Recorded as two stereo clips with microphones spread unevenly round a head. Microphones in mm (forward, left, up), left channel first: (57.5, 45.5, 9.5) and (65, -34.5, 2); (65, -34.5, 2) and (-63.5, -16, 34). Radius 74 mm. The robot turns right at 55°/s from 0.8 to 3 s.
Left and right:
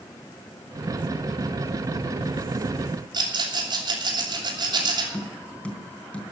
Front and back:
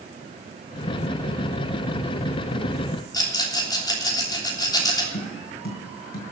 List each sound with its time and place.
3.1 s a rattle: 65° right, 3 m
5.1 s tapping: 20° left, 3.5 m